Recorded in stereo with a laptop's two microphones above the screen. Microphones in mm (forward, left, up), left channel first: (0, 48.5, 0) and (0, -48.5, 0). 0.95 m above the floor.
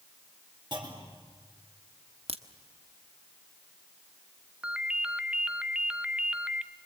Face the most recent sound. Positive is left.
turn(degrees=-10)  # may be behind; listen again after turning